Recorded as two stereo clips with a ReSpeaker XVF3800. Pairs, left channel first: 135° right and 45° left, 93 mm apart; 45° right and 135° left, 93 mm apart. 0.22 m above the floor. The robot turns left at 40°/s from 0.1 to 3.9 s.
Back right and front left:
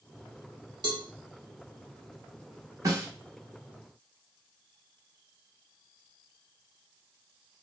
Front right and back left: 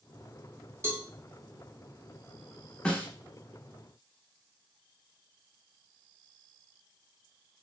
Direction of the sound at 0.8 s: 80° left.